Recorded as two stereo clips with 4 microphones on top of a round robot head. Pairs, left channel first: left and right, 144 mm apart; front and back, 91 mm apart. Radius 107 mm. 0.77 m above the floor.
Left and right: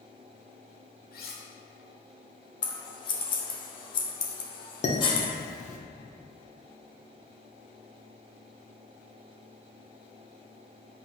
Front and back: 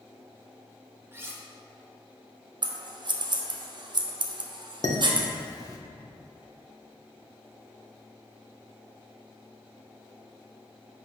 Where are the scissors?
145° left, 1.0 m.